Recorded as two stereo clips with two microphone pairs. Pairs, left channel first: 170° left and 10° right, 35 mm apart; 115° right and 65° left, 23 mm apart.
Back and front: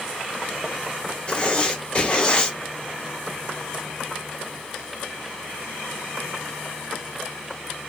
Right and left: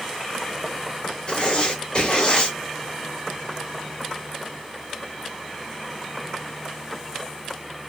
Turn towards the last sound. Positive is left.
turn(degrees=-145)